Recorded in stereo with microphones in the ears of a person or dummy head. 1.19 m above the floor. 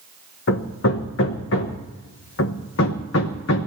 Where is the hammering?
55° left (ahead or behind), 1.1 m.